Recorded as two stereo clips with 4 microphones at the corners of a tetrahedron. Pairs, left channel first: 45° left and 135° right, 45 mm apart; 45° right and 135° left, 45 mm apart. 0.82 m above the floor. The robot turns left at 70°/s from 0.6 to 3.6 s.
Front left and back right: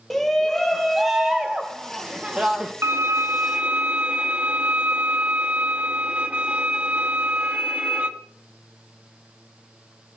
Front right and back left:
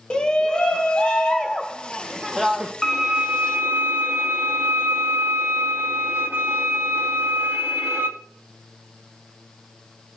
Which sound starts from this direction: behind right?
A violin, at 2.8 s.